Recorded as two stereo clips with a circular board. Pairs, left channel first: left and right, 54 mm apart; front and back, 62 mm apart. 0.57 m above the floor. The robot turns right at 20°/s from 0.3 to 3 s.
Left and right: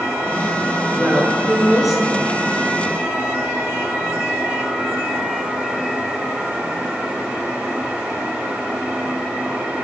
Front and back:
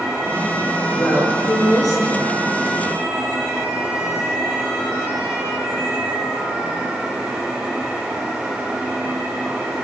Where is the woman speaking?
20° right, 8.5 m; by 2.3 s 10° left, 8.5 m.